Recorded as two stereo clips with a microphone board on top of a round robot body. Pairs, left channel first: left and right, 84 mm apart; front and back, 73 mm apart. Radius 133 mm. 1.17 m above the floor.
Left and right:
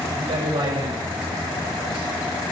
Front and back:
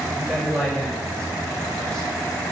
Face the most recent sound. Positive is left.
turn(degrees=-85)